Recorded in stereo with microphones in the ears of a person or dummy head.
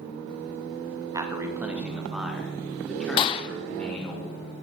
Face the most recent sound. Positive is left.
turn(degrees=30)  # may be behind; listen again after turning